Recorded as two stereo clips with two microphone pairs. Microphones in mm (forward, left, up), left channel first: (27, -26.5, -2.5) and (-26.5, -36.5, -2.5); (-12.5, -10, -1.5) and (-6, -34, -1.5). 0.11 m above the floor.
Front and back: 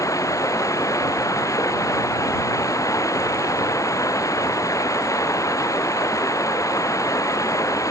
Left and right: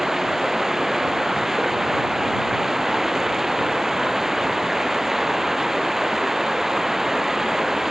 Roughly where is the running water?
Ahead.